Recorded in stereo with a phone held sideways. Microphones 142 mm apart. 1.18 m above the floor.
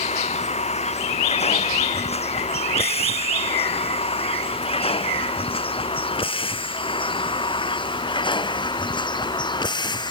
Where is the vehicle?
50° left (ahead or behind); by 10.1 s 30° left (ahead or behind).